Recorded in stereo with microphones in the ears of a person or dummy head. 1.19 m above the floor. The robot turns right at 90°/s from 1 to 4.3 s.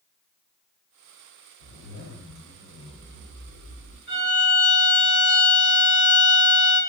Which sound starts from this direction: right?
A violin, at 4.1 s.